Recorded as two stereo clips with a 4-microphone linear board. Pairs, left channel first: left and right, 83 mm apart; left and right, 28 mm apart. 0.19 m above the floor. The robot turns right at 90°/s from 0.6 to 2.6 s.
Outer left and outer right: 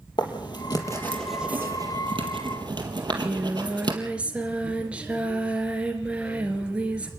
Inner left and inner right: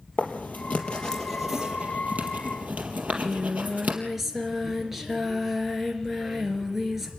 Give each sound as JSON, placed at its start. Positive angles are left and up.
{"t": 0.2, "sound": "writing", "side_deg": 60, "distance_m": 4.0}
{"t": 3.0, "sound": "singing", "side_deg": -15, "distance_m": 3.5}